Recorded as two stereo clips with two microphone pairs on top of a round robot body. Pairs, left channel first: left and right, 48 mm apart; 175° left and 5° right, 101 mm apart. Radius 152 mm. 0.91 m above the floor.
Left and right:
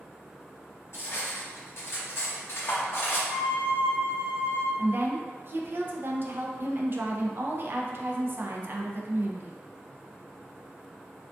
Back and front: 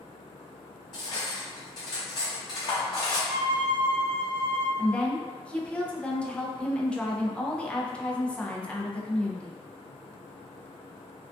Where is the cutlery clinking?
120° left, 0.5 m.